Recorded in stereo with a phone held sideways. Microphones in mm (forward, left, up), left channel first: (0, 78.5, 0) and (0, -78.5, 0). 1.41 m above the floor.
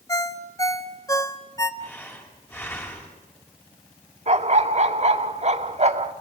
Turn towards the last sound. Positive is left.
turn(degrees=-50)  # may be behind; listen again after turning